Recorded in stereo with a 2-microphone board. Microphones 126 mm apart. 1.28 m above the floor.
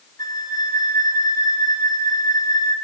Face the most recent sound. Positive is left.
turn(degrees=30)  # may be behind; listen again after turning